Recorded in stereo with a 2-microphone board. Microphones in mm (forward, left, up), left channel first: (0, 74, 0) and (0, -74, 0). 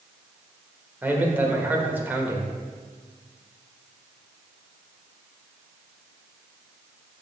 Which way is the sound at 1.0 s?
15° right (ahead or behind).